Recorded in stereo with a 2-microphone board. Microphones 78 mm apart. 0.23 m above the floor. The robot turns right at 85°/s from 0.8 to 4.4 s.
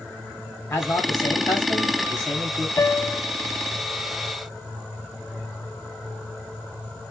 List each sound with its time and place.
0.7 s a man speaking: 60° left, 1.9 m; by 2.7 s 140° right, 1.9 m
2.8 s a piano: 65° left, 0.6 m; by 3.2 s 105° left, 0.6 m